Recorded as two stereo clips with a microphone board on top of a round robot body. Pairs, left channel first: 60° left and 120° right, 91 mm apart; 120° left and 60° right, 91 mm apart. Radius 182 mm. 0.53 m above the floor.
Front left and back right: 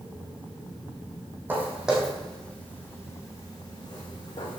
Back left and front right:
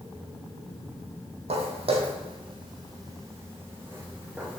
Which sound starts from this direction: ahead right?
Footsteps, at 1.5 s.